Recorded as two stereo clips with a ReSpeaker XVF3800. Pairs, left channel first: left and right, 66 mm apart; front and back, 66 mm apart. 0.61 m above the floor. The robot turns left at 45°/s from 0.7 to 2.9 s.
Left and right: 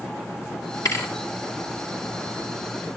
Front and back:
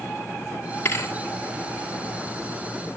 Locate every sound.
0.8 s a thud: 55° left, 2.5 m; by 1.1 s 40° left, 2.5 m